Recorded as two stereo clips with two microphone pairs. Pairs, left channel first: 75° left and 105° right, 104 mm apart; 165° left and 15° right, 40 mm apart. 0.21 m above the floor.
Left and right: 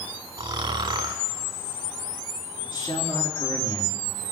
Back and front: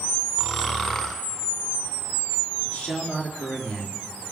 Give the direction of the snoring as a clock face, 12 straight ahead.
4 o'clock.